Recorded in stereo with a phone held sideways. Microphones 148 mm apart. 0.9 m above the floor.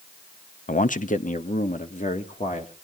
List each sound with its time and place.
0.7 s a man speaking: 60° left (ahead or behind), 0.6 m; by 2.8 s 55° left (ahead or behind), 1.9 m